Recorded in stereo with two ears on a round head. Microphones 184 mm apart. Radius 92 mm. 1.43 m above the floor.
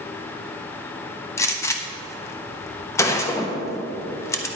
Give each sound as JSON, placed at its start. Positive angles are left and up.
{"t": 1.4, "sound": "a gunshot", "side_deg": 15, "distance_m": 0.6}